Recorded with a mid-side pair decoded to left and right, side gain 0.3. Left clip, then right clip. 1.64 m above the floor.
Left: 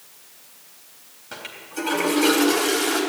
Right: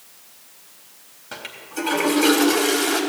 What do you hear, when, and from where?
1.3 s a toilet flushing: 20° right, 4 m